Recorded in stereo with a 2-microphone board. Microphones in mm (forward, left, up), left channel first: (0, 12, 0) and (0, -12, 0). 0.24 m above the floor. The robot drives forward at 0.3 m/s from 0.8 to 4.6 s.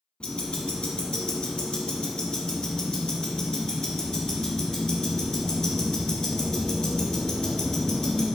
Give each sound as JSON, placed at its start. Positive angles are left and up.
{"t": 0.2, "sound": "ticking", "side_deg": 40, "distance_m": 1.4}